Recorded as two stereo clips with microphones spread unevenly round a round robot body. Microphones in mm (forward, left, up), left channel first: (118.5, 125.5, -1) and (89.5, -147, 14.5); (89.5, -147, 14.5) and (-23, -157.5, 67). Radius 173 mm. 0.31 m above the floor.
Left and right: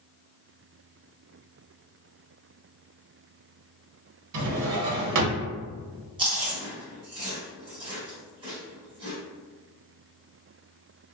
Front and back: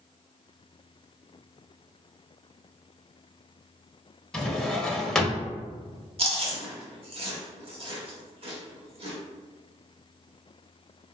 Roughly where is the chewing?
Behind right.